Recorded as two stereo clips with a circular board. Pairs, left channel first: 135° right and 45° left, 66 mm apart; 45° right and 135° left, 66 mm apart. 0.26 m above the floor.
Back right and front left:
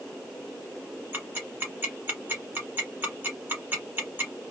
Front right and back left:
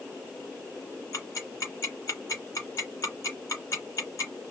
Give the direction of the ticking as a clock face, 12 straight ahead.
1 o'clock.